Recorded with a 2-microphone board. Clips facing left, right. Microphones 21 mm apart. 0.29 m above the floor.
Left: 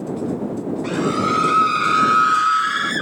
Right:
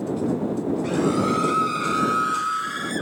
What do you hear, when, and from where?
0.8 s a scream: 20° left (ahead or behind); by 3.0 s 35° left (ahead or behind)